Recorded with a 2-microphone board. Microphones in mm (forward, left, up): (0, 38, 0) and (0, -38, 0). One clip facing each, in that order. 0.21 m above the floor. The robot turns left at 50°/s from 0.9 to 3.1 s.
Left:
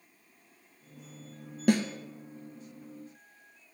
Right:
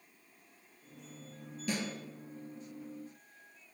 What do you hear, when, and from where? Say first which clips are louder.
1.7 s a snare drum: left 12 dB; 65° left (ahead or behind), 0.8 m; by 1.8 s 70° left (ahead or behind), 0.8 m